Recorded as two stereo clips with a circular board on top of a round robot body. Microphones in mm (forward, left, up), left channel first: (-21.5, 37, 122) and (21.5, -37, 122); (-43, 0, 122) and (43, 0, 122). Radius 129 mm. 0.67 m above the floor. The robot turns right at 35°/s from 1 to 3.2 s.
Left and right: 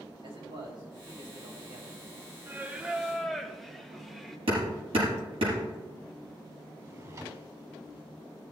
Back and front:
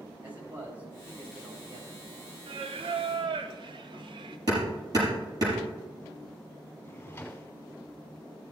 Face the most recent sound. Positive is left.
turn(degrees=-110)